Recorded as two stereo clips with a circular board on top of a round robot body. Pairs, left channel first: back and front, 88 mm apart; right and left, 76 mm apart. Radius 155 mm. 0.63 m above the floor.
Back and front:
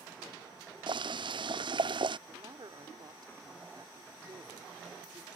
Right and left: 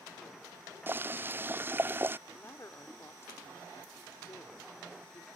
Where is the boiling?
25° left.